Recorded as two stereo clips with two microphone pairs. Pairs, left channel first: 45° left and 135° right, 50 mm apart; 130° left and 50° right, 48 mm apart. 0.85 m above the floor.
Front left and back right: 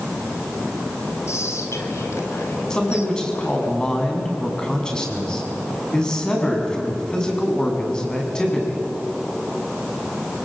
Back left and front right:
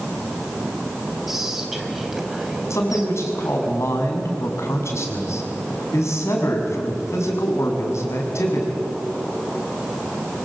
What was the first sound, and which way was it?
Whispering, 35° left.